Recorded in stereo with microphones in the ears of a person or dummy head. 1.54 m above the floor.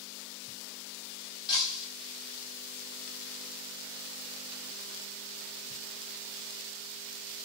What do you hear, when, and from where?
1.5 s breaking glass: 25° left (ahead or behind), 3.5 m